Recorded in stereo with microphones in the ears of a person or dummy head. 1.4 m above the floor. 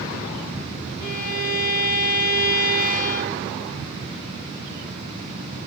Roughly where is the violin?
Left.